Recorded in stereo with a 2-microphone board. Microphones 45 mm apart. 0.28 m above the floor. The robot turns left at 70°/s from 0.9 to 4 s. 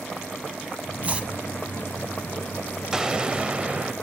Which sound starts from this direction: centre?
An explosion, at 2.9 s.